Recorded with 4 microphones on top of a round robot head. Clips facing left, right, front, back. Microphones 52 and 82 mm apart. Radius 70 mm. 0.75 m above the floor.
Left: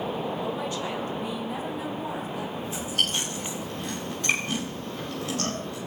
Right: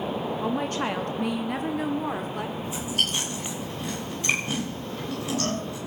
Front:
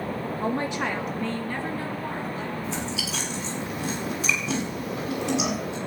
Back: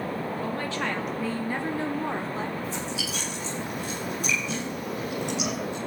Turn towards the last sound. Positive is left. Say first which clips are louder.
# left 1 dB, front 1 dB
turn(degrees=-10)